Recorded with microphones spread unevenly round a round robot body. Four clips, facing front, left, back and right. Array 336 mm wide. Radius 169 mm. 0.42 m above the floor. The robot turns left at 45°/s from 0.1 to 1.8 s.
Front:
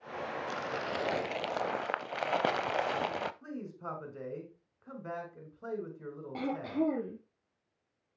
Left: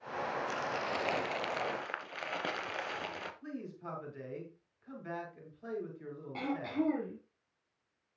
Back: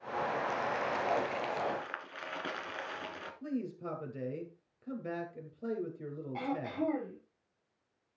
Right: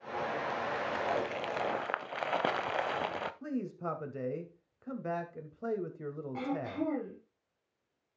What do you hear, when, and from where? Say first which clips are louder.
0.5 s crumpling: right 2 dB, back 2 dB; 35° left, 0.8 m; by 3.3 s 20° right, 0.8 m
3.4 s a man speaking: right 7 dB, back 4 dB; 95° right, 2.5 m
6.3 s throat clearing: left 1 dB, front 3 dB; 10° left, 4 m